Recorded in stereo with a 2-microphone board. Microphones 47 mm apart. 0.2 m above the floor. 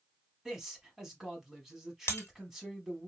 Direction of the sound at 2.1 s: 75° left (ahead or behind).